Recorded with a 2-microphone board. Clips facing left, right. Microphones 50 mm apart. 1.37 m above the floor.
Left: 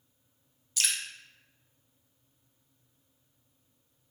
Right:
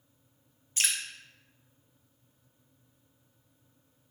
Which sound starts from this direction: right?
Dripping, at 0.8 s.